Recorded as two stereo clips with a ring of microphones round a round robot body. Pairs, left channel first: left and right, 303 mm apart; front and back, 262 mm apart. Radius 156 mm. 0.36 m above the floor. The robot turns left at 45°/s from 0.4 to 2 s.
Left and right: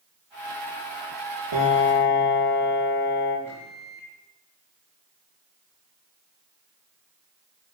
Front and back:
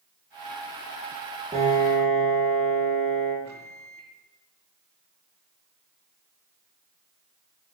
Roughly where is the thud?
No thud in this recording.